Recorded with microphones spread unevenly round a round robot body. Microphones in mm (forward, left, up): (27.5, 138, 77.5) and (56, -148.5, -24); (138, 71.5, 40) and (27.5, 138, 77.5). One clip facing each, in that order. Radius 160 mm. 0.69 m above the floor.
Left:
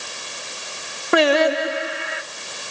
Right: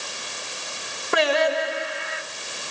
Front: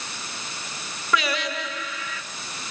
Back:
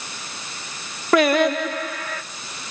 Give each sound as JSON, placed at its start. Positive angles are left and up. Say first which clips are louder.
{"t": 1.1, "sound": "singing", "louder": "left 5 dB, back 10 dB", "azimuth_deg": 110, "distance_m": 1.3}